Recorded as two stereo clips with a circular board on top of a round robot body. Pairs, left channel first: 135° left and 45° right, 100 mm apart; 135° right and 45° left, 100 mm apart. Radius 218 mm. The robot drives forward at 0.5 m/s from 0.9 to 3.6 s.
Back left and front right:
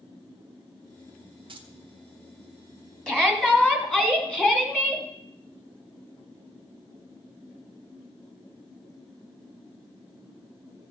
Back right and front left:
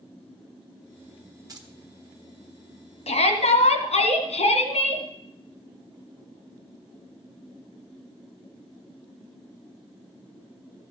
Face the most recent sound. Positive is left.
turn(degrees=-145)